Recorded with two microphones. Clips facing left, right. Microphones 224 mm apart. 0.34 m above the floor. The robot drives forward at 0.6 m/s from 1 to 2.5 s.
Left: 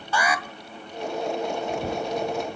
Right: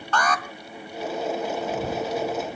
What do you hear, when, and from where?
0.1 s an alarm: 10° left (ahead or behind), 1.6 m